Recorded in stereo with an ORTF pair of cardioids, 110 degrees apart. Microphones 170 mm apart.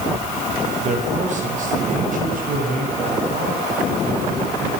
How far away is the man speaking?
About 7.5 m.